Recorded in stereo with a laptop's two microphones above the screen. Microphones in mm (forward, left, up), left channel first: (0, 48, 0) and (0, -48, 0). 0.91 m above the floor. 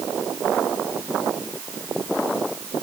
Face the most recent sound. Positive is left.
No sound to turn to.